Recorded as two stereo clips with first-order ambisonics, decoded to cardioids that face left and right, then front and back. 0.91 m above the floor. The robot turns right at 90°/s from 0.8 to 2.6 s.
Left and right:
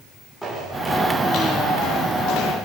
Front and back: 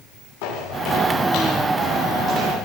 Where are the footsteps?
5° right, 9 m; by 2.5 s 140° left, 9 m.